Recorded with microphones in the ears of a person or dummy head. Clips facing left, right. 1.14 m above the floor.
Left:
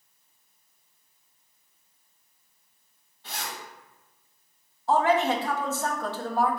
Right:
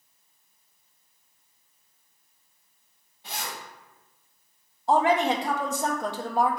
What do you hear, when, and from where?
3.2 s a zipper: 15° right (ahead or behind), 1.7 m
4.9 s a woman speaking: 15° right (ahead or behind), 0.5 m